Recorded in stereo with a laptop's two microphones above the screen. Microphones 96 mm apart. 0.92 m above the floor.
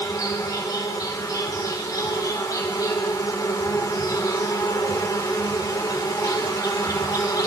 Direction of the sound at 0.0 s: 40° left (ahead or behind).